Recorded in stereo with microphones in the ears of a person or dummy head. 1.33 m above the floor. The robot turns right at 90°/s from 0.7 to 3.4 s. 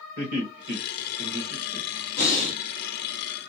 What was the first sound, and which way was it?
Laughter, 55° right (ahead or behind).